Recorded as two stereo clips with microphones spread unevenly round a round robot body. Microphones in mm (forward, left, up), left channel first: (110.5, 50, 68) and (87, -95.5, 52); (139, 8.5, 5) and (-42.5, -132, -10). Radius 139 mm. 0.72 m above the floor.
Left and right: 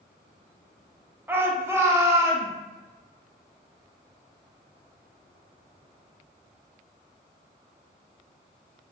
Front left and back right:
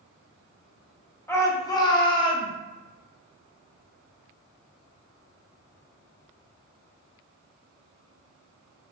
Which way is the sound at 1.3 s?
40° right.